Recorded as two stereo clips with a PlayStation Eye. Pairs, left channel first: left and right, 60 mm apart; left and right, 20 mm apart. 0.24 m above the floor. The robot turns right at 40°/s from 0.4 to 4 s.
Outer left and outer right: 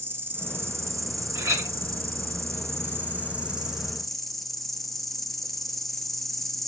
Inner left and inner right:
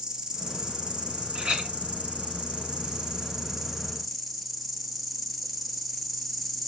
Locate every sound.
0.0 s an insect: 140° right, 0.9 m; by 6.7 s straight ahead, 0.9 m
1.4 s a clink: 60° right (ahead or behind), 1.6 m; by 1.8 s 55° right (ahead or behind), 1.6 m